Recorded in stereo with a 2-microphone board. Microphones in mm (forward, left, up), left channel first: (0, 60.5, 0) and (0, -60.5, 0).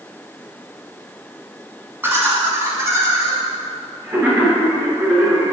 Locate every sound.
2.0 s laughter: 20° right (ahead or behind), 1.8 m; by 5.5 s 25° right (ahead or behind), 2 m